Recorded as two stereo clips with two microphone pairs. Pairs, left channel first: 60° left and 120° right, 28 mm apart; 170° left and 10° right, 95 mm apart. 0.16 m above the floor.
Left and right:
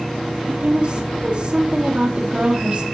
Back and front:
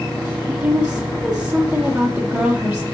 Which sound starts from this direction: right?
A woman speaking, at 0.5 s.